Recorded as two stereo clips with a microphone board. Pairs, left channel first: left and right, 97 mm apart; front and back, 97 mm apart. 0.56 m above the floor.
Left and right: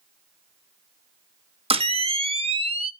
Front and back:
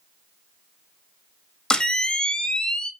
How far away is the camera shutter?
About 1.0 m.